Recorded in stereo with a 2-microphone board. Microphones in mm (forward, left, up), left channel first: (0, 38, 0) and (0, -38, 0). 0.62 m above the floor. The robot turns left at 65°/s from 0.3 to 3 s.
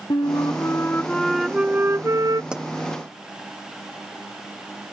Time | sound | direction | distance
0.1 | a flute | 70° left | ?
2.5 | a pop | 15° right (ahead or behind) | ?